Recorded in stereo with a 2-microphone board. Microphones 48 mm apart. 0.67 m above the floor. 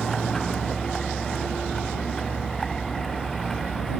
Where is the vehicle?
5° left (ahead or behind).